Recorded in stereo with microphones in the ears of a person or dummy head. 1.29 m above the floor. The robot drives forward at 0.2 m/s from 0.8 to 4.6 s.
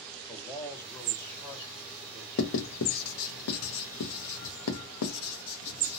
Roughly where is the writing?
Left.